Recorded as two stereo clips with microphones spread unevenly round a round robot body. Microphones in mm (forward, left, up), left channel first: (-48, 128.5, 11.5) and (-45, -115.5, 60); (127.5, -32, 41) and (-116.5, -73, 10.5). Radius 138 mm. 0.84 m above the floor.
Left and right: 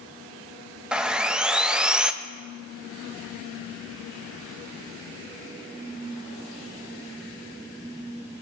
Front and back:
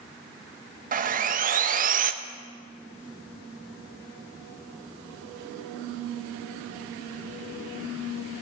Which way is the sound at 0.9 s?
175° left.